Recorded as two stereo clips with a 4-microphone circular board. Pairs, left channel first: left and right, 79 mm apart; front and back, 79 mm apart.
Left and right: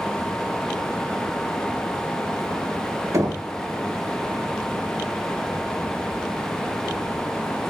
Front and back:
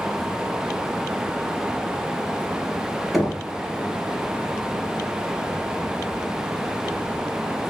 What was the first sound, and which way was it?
Knocking, 95° right.